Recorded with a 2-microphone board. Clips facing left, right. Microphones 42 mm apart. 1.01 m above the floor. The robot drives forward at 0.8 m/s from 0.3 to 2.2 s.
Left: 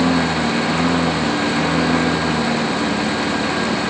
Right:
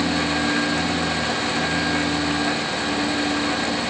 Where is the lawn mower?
65° left (ahead or behind).